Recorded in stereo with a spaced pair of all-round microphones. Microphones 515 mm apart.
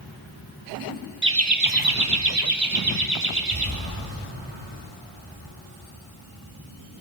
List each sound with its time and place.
1.2 s laughter: 20° right (ahead or behind), 1.5 m; by 3.7 s 70° right (ahead or behind), 3 m